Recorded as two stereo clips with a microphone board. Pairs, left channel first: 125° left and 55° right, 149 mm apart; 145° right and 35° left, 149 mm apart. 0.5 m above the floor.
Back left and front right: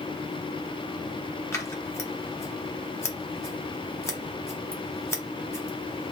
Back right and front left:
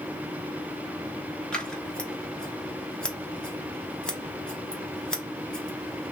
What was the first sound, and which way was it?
Scissors, 145° left.